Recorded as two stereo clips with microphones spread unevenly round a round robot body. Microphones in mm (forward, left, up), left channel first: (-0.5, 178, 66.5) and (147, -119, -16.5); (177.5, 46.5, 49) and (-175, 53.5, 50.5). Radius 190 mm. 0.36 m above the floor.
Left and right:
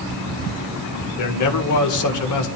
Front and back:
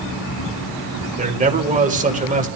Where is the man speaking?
125° left, 1.8 m.